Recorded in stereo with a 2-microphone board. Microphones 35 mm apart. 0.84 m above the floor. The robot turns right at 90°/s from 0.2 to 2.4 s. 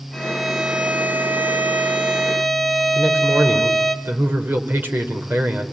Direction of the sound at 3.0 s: 75° right (ahead or behind).